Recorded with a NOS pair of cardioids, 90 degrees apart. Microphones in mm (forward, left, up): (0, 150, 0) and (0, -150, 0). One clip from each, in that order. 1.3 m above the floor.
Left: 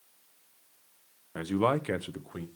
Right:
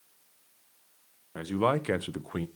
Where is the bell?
I don't hear a bell.